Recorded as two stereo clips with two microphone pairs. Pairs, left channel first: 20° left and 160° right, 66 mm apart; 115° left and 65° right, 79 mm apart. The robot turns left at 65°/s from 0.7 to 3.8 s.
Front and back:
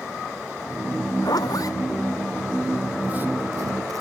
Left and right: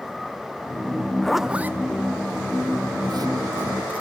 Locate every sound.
1.2 s a zipper: 30° left, 0.6 m; by 4.0 s 135° right, 0.6 m